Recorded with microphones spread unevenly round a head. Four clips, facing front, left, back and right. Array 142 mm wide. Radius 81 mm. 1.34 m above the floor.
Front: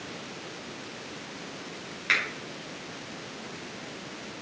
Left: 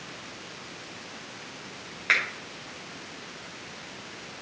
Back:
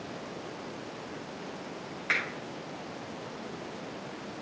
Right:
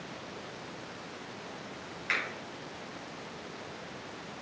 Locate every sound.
2.1 s a finger snap: 65° left, 6 m